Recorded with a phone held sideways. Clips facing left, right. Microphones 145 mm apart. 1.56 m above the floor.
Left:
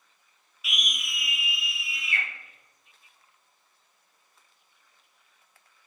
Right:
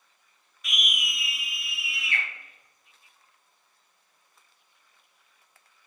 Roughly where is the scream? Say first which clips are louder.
Right 2 dB; centre.